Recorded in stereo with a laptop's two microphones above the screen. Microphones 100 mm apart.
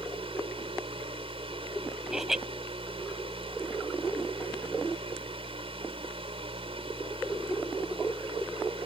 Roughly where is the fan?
Right.